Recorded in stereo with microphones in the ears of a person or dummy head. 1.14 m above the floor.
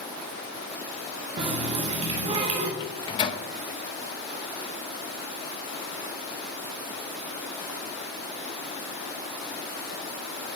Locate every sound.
1.4 s a running tap: 35° right (ahead or behind), 1.0 m
2.8 s a microwave: 30° left (ahead or behind), 0.7 m